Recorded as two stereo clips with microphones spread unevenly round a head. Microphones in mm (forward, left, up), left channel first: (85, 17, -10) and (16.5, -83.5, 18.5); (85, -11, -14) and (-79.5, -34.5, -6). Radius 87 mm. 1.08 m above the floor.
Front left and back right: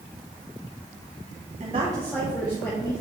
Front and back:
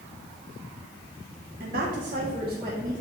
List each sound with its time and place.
1.6 s a woman speaking: 160° right, 0.9 m; by 3.0 s 110° left, 1.8 m